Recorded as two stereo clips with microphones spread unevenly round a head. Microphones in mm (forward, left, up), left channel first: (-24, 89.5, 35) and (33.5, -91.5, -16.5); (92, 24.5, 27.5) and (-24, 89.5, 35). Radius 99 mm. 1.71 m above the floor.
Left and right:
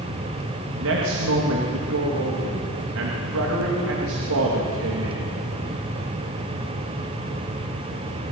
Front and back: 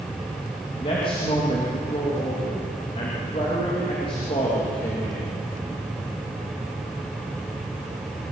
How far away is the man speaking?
About 3 m.